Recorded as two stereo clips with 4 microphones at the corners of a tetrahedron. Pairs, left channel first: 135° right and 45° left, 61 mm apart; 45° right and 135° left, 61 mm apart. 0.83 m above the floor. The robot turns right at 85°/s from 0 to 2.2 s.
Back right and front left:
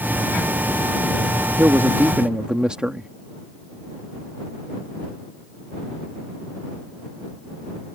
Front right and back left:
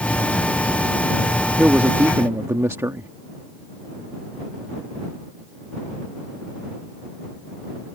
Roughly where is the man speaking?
Ahead left.